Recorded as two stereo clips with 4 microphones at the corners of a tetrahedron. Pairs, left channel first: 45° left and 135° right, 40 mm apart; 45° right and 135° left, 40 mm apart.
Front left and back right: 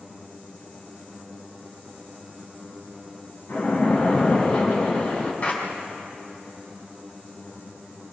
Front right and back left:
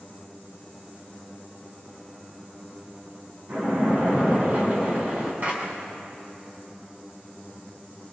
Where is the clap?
100° left, 6 m.